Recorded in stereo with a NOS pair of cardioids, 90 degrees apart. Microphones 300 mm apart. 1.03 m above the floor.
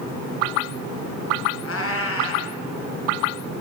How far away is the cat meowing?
About 3.5 m.